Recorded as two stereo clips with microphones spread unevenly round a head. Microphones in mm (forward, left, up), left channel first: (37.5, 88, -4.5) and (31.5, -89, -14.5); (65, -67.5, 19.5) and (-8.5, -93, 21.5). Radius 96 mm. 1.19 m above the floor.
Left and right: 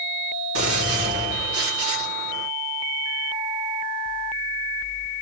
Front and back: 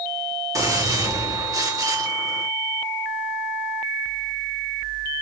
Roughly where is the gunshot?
Behind right.